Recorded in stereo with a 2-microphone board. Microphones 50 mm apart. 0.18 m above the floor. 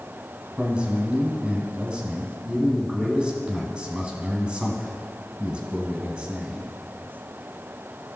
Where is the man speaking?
20° right (ahead or behind), 1.2 m.